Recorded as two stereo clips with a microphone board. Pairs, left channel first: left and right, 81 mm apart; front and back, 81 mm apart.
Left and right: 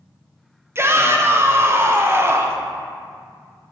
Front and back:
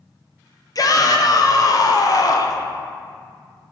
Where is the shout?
35° right, 0.7 m.